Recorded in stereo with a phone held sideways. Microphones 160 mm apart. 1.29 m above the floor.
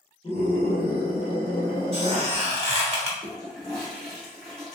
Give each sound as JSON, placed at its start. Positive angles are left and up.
{"t": 0.2, "sound": "a scream", "side_deg": 35, "distance_m": 1.0}
{"t": 1.9, "sound": "a squeak", "side_deg": -35, "distance_m": 1.1}
{"t": 3.2, "sound": "a toilet flushing", "side_deg": 5, "distance_m": 1.4}